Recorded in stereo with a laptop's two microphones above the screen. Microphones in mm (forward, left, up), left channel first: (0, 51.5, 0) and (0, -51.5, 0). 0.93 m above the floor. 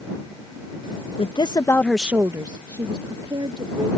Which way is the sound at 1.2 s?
60° left (ahead or behind).